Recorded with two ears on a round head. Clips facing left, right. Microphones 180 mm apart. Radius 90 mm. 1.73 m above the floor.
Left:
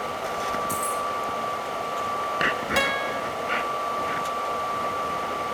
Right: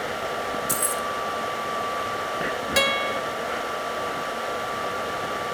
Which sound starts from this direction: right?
Keys jangling, at 0.7 s.